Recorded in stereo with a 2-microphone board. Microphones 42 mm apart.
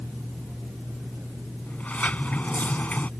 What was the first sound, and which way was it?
A sliding door, 35° left (ahead or behind).